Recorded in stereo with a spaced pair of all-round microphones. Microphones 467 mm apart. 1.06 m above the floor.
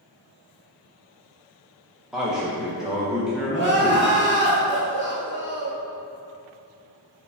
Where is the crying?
25° right (ahead or behind), 0.9 m.